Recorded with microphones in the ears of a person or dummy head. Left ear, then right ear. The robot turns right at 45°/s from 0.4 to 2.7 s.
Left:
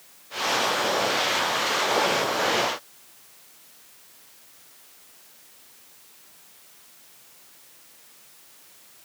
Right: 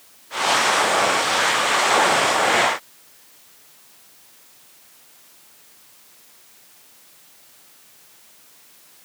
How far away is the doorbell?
I don't hear a doorbell.